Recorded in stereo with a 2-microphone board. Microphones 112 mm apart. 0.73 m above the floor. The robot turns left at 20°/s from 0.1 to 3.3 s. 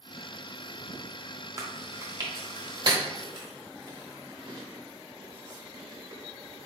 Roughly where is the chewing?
Right.